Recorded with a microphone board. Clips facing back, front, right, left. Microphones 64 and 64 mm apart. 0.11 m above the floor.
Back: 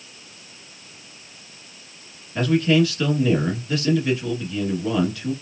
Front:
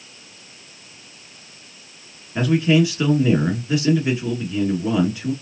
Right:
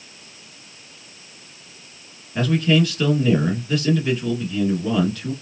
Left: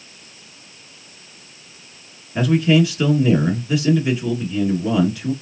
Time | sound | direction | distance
2.4 | a man speaking | 30° left | 1.4 m